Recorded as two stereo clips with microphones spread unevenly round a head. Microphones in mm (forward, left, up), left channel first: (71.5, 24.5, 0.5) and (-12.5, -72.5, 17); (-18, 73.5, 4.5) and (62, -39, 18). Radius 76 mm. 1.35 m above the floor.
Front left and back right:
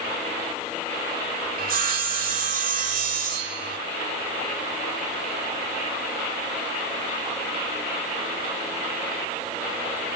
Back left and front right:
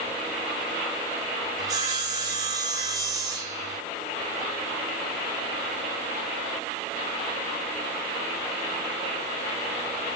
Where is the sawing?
120° right, 4 m.